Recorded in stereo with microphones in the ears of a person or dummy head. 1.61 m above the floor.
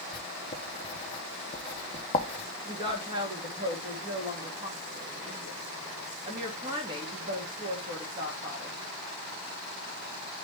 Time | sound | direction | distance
0.1 | writing | 30° left (ahead or behind) | 0.9 m
2.6 | a woman speaking | 25° right (ahead or behind) | 2.5 m